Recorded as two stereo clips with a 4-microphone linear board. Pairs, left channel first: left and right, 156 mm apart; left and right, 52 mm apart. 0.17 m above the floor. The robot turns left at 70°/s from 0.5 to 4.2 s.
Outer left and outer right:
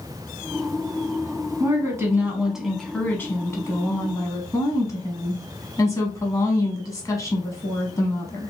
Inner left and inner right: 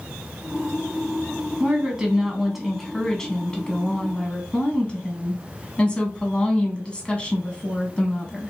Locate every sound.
1.6 s a woman speaking: 20° right (ahead or behind), 1.1 m; by 8.5 s 20° left (ahead or behind), 1.1 m